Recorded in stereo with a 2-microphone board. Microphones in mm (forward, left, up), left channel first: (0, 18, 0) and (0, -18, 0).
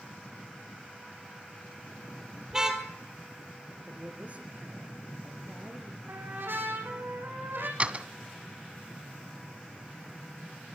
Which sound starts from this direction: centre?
A car horn, at 2.5 s.